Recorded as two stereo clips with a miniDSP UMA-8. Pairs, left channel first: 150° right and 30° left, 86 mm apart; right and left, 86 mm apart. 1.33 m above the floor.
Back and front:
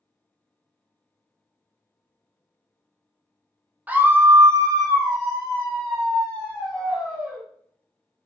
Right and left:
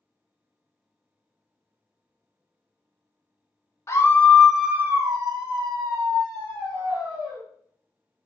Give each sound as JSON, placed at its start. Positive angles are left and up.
{"t": 3.9, "sound": "a scream", "azimuth_deg": -40, "distance_m": 0.7}